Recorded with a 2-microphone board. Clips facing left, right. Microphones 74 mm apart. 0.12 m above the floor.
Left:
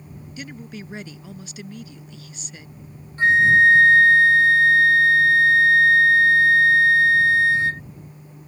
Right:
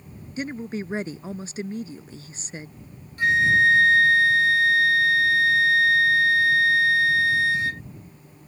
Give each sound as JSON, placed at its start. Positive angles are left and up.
{"t": 0.4, "sound": "a woman speaking", "side_deg": -35}
{"t": 3.2, "sound": "a flute", "side_deg": 30}